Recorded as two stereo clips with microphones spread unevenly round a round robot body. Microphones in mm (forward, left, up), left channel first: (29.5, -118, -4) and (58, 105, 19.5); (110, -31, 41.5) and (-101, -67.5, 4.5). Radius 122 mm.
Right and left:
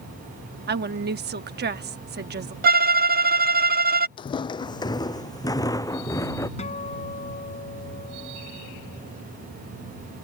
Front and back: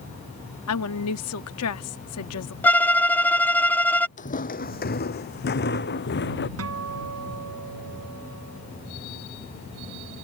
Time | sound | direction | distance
0.7 | a woman speaking | 40° left | ?
2.6 | a violin | 100° left | ?
4.2 | footsteps | 30° right | ?
6.6 | a guitar | 165° right | ?